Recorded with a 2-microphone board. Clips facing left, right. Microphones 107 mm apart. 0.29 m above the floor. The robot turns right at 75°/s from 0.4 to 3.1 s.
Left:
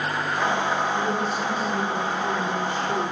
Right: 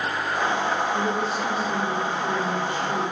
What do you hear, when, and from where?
0.9 s a woman speaking: 110° right, 3.5 m; by 3.1 s 55° left, 3.5 m